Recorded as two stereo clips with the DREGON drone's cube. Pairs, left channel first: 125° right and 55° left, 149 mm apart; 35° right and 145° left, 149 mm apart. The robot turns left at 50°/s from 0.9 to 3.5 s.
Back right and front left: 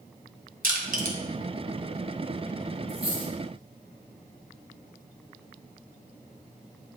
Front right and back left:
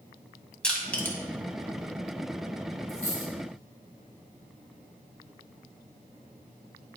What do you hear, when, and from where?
0.6 s crushing: 50° left, 1.7 m; by 1.2 s 35° left, 1.7 m
2.9 s a dropped coin: 10° left, 3 m; by 3.3 s 10° right, 3 m